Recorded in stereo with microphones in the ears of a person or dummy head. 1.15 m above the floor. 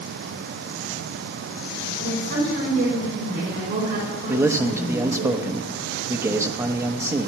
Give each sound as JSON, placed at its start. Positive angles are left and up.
{"t": 2.0, "sound": "a woman speaking", "side_deg": -55, "distance_m": 5.0}
{"t": 4.3, "sound": "a man speaking", "side_deg": -15, "distance_m": 0.9}